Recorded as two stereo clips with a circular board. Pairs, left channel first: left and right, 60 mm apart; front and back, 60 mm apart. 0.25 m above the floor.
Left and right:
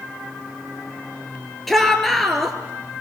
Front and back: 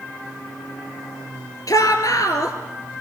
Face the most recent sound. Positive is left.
turn(degrees=5)